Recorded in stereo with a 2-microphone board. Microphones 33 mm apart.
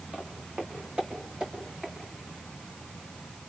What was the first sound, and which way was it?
Footsteps, 30° right (ahead or behind).